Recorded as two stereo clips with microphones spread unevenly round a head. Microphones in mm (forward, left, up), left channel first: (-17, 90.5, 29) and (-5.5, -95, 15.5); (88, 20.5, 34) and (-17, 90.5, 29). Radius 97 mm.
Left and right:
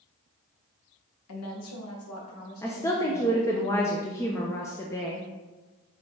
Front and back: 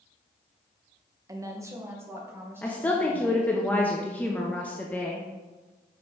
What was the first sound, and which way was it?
A woman speaking, 80° left.